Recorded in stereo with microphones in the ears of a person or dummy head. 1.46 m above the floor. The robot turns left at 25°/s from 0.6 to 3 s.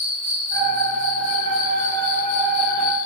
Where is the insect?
135° left, 1.2 m; by 3.1 s 75° left, 1.2 m.